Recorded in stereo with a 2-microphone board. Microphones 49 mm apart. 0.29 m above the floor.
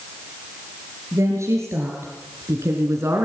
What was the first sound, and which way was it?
A woman speaking, 75° right (ahead or behind).